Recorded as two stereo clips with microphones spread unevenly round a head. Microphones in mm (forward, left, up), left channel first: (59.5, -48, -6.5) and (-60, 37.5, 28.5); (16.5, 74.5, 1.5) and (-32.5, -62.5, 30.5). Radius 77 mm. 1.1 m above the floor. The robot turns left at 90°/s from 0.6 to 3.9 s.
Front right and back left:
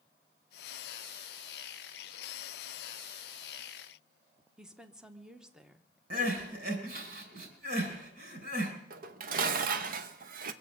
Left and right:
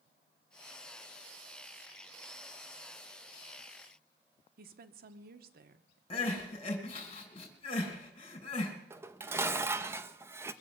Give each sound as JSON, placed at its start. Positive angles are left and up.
{"t": 4.6, "sound": "a woman speaking", "azimuth_deg": -120, "distance_m": 1.0}
{"t": 6.1, "sound": "crying", "azimuth_deg": 125, "distance_m": 3.0}
{"t": 8.9, "sound": "dishes clattering", "azimuth_deg": 175, "distance_m": 0.7}